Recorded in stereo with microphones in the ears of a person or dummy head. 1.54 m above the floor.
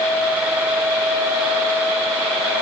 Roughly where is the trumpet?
I don't hear a trumpet.